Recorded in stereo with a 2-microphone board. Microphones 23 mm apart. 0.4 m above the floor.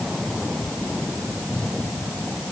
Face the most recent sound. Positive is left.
No sound to turn to.